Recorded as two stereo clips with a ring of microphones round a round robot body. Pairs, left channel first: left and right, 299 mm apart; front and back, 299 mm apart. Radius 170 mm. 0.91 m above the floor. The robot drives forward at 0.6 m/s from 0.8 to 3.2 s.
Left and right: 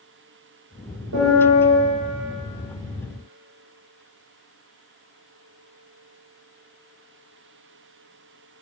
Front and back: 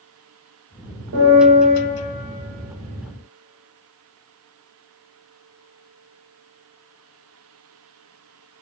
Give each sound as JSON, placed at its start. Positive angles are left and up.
{"t": 1.1, "sound": "a piano", "azimuth_deg": -135, "distance_m": 3.5}